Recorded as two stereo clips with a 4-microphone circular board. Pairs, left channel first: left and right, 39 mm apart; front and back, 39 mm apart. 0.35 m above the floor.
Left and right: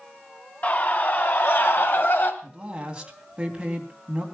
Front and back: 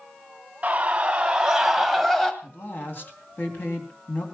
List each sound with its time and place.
0.6 s a scream: 125° left, 3 m; by 2.3 s 75° left, 2.0 m
2.4 s a woman speaking: 25° right, 3 m